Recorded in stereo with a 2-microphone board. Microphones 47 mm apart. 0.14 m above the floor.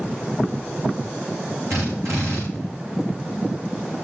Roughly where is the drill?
Right.